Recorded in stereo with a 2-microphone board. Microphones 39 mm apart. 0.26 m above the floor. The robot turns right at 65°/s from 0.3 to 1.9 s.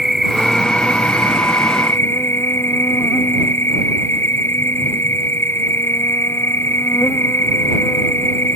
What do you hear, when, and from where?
0.0 s an insect: 5° right; by 8.6 s 100° left